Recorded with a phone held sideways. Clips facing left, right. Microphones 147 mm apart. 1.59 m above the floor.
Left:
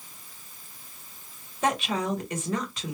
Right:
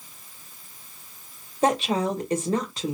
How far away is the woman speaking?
About 1.1 m.